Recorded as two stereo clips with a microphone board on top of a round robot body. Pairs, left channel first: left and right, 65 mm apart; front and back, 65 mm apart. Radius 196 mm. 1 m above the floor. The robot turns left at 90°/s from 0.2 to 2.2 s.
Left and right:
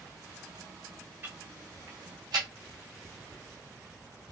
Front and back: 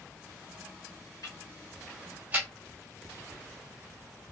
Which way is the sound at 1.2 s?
30° right.